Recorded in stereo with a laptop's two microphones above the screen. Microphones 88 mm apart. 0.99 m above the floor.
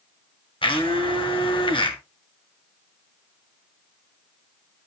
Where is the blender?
70° left (ahead or behind), 1.8 m.